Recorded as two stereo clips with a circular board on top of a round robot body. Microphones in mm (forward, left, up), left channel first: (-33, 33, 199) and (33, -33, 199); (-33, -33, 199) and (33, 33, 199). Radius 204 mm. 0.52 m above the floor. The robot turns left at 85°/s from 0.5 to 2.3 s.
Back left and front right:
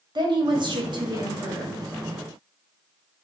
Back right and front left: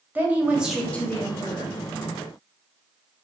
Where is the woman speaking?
25° right, 1.5 m; by 1.8 s 135° right, 1.5 m.